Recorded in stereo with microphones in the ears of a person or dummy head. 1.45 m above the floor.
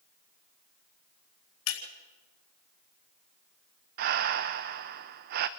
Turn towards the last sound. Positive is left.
turn(degrees=-45)  # may be behind; listen again after turning